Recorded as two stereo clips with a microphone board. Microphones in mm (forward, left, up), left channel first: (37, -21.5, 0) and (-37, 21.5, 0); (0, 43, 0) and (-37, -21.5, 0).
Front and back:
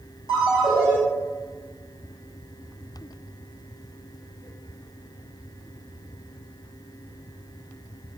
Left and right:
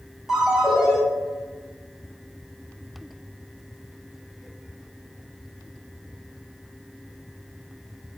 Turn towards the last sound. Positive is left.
turn(degrees=-35)